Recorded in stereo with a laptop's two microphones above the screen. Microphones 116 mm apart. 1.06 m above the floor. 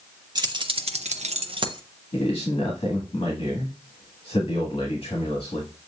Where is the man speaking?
55° left (ahead or behind), 1.6 m.